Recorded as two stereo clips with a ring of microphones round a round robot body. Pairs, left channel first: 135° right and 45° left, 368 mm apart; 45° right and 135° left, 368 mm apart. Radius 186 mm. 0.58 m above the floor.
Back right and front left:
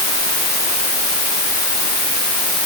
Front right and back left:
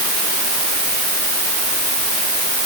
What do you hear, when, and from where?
Only background noise.